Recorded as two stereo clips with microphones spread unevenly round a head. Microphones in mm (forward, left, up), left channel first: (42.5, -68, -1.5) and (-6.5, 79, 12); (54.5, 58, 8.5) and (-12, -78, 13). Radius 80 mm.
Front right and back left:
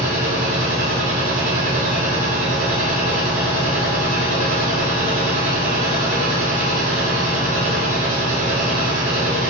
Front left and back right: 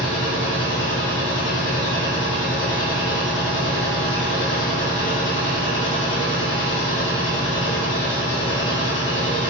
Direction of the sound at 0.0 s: 70° left.